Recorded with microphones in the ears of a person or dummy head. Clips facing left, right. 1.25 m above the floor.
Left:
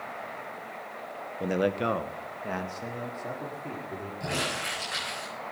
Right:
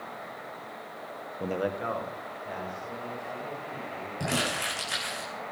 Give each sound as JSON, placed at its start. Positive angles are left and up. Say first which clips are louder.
{"t": 1.4, "sound": "a man speaking", "louder": "left 4 dB", "side_deg": 5, "distance_m": 0.8}
{"t": 4.2, "sound": "crumpling", "louder": "right 3 dB", "side_deg": -50, "distance_m": 9.0}